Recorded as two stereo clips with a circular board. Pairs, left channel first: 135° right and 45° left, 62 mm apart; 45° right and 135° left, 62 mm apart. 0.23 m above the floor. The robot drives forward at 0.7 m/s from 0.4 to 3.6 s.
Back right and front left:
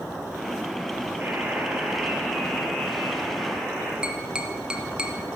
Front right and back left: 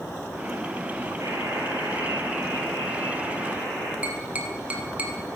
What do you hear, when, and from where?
1.2 s a buzzer: 105° left, 1.5 m; by 3.9 s 145° left, 2.5 m
4.0 s tapping: 105° left, 0.9 m